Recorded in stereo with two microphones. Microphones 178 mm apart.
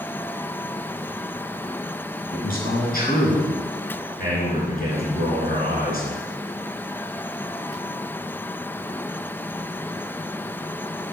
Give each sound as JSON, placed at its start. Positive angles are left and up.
{"t": 2.3, "sound": "a man speaking", "side_deg": 55, "distance_m": 4.0}